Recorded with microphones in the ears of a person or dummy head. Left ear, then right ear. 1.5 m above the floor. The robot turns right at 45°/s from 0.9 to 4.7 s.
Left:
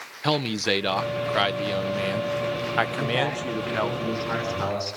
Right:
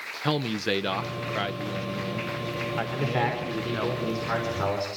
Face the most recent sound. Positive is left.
turn(degrees=20)